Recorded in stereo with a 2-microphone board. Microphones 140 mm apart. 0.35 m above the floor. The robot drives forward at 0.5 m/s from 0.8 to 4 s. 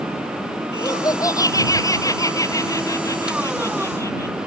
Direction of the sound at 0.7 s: 25° left (ahead or behind).